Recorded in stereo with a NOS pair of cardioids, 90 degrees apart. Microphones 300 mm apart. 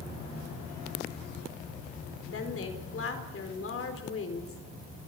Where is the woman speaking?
45° left, 4 m.